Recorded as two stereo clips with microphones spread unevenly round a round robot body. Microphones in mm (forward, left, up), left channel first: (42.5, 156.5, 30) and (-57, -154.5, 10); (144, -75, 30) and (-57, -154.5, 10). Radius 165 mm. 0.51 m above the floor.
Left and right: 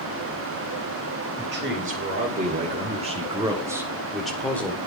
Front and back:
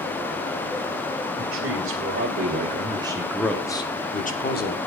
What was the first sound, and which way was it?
A man speaking, 170° right.